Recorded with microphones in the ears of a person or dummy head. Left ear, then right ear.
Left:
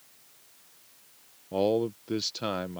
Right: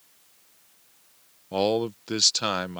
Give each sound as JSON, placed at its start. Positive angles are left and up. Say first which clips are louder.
{"t": 1.5, "sound": "a man speaking", "louder": "right 2 dB", "side_deg": -30}